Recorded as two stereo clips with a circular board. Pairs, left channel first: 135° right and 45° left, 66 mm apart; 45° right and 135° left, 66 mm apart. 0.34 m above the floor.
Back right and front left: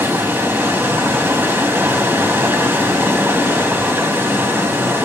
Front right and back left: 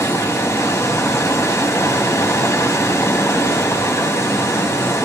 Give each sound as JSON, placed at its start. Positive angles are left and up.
{"t": 0.0, "sound": "running water", "azimuth_deg": -5, "distance_m": 2.5}